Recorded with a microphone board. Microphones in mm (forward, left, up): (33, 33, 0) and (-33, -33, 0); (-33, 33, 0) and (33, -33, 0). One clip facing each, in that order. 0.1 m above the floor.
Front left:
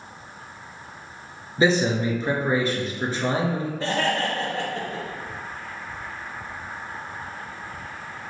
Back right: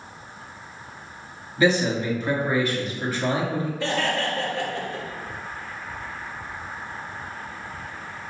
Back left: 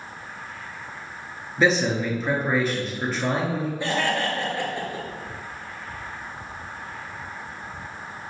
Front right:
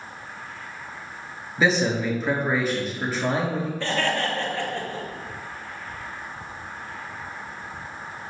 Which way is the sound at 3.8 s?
70° left.